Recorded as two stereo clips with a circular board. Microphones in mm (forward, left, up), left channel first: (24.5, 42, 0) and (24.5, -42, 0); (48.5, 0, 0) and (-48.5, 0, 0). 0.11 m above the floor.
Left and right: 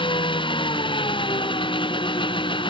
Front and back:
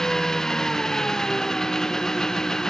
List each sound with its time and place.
0.0 s an engine running: 85° left